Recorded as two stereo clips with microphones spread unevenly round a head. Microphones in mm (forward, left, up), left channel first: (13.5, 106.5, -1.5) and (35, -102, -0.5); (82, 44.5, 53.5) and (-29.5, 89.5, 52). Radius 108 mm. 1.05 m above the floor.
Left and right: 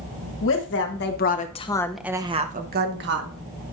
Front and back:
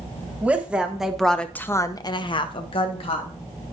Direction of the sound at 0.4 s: 80° left.